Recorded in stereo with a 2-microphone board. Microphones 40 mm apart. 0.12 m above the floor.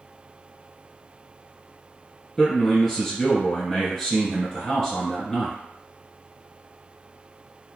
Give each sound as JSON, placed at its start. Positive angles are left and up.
{"t": 2.4, "sound": "a man speaking", "side_deg": 10, "distance_m": 1.7}